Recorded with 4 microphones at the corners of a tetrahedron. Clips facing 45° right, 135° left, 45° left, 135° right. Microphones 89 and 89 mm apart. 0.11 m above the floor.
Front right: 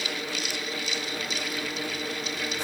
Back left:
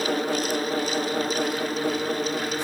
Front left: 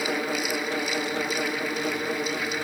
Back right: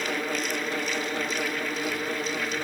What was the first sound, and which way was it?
Only background noise.